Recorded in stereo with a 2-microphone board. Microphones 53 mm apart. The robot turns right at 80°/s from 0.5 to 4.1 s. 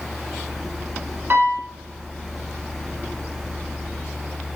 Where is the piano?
45° right, 0.9 m; by 1.7 s 10° right, 0.9 m.